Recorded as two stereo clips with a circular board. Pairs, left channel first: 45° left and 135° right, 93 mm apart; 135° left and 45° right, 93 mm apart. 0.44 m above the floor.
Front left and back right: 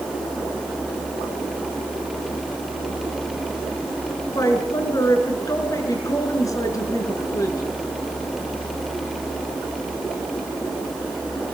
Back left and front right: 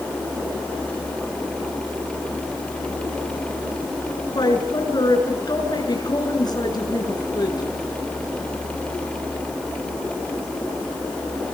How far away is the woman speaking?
About 6.5 m.